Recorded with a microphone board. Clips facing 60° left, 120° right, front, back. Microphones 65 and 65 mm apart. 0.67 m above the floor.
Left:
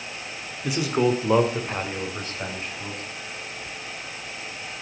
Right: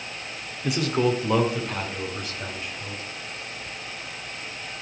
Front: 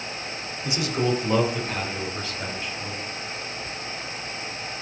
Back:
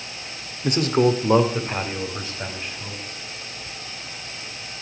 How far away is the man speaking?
About 1.3 m.